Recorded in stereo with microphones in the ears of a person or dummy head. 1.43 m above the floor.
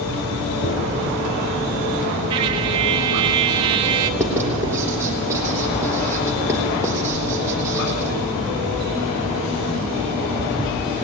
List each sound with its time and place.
0.6 s a dropped coin: 40° left (ahead or behind), 5.5 m
2.3 s a trumpet: 20° right (ahead or behind), 0.5 m
4.2 s writing: 10° right (ahead or behind), 3.5 m